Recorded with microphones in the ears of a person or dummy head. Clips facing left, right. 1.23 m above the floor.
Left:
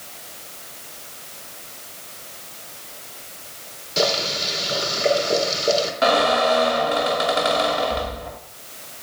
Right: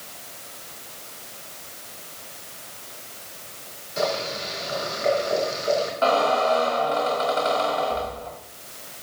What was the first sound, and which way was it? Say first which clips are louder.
Boiling: left 3 dB; 45° left (ahead or behind).